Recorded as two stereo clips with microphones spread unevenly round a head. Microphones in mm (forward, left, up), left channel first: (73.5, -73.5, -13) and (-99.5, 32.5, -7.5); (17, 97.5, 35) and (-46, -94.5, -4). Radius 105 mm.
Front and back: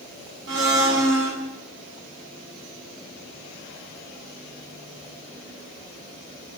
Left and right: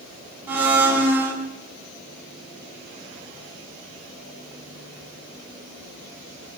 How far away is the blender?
About 6.5 m.